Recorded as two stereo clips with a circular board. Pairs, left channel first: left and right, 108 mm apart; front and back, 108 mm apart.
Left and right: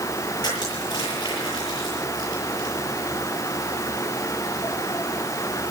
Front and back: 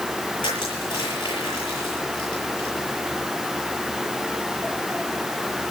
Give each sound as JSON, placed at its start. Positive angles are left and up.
{"t": 0.4, "sound": "crushing", "azimuth_deg": 40, "distance_m": 8.5}